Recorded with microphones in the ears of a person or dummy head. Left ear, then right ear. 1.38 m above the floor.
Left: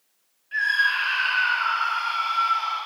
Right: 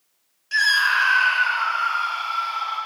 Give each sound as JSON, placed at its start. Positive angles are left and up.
{"t": 0.5, "sound": "a scream", "side_deg": -90, "distance_m": 0.7}